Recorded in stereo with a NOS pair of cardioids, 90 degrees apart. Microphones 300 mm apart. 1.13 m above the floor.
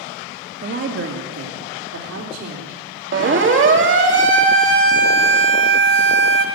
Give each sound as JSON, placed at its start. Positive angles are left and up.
{"t": 0.6, "sound": "a woman speaking", "azimuth_deg": -35, "distance_m": 2.5}
{"t": 3.1, "sound": "a siren", "azimuth_deg": -40, "distance_m": 2.5}